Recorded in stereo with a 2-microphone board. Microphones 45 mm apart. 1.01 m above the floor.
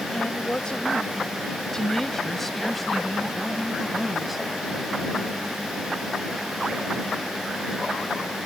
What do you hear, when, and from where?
0.1 s a woman speaking: 25° left (ahead or behind); by 4.5 s 5° right (ahead or behind)